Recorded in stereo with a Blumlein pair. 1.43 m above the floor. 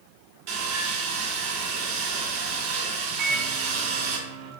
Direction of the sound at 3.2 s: 40° right.